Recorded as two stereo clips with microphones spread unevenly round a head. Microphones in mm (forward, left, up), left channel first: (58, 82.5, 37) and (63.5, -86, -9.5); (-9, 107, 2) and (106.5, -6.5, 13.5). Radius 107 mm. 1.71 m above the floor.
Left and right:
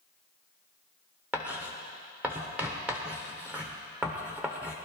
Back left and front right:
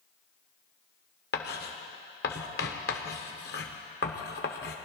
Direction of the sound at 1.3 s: 175° right.